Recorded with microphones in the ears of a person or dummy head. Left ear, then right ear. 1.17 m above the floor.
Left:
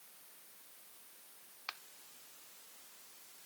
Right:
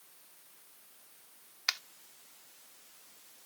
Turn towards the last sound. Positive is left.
turn(degrees=-75)  # may be behind; listen again after turning